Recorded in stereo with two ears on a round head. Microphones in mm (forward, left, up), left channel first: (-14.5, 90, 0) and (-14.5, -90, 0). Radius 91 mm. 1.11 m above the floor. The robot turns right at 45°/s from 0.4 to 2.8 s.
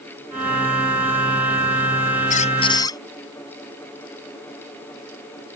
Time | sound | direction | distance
2.3 | a squeak | 40° left (ahead or behind) | ?